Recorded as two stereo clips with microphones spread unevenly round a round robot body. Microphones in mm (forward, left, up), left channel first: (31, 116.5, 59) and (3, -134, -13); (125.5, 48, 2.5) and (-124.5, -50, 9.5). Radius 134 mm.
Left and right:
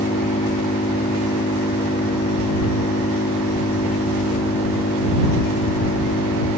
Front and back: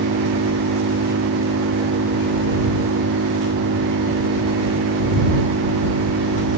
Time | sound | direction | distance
0.0 | an engine running | 150° left | ?